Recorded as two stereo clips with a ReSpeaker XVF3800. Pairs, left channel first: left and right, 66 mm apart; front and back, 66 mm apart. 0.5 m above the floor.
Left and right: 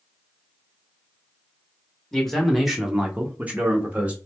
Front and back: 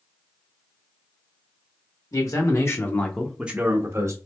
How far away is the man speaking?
About 1.3 m.